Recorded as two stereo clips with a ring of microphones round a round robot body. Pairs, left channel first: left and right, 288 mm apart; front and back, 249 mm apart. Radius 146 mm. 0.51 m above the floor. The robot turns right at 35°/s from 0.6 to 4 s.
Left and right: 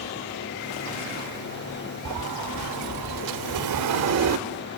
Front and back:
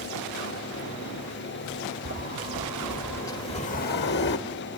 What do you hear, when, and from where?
2.0 s a sliding door: 120° right, 1.0 m; by 4.4 s 55° right, 1.0 m